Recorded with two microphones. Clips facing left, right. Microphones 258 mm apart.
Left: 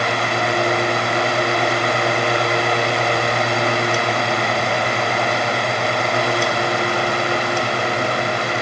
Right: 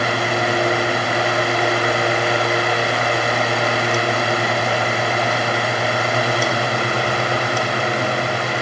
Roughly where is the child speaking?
I don't hear a child speaking.